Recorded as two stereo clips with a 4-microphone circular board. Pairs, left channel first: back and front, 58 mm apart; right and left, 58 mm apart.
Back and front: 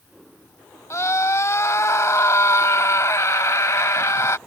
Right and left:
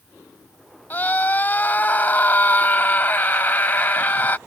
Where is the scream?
150° right.